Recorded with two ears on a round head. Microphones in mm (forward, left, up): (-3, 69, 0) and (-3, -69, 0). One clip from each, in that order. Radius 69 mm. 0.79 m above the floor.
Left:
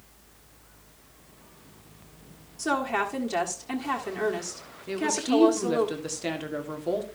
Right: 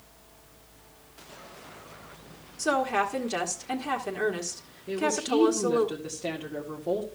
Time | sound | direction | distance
2.6 | a woman speaking | centre (ahead or behind) | 1.5 m
4.9 | a woman speaking | 45° left (ahead or behind) | 1.8 m